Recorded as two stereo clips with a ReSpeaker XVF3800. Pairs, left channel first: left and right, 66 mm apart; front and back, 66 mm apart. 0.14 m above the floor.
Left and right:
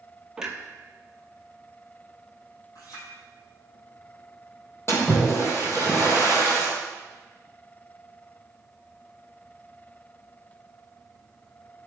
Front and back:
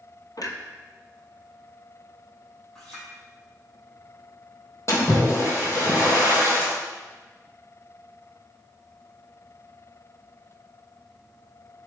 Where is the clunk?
10° right, 1.0 m.